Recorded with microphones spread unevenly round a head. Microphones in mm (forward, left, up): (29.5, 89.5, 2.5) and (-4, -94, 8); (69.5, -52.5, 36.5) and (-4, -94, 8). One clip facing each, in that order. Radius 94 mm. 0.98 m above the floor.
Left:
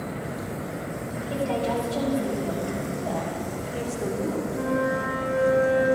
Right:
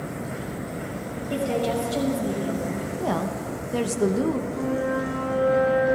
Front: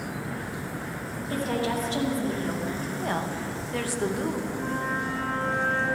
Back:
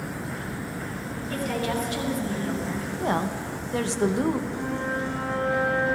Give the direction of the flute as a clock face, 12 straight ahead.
7 o'clock.